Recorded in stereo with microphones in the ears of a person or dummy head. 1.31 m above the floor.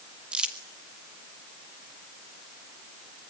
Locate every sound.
0.3 s crumpling: 5° right (ahead or behind), 2 m